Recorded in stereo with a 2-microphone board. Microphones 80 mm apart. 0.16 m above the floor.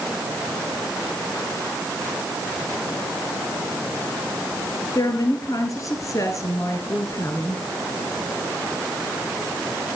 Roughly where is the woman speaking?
Left.